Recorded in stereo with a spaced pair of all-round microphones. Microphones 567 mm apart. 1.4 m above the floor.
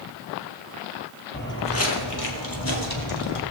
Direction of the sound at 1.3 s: 15° left (ahead or behind).